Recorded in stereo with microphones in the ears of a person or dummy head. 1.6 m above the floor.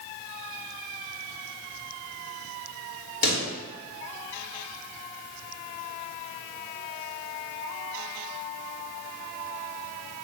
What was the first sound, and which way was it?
A pop, 65° left (ahead or behind).